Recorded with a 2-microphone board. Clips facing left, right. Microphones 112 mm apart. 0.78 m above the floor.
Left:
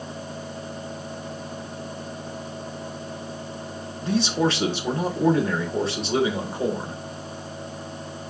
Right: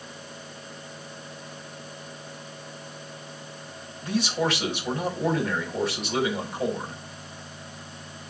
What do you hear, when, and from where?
4.0 s a man speaking: 30° left (ahead or behind), 3 m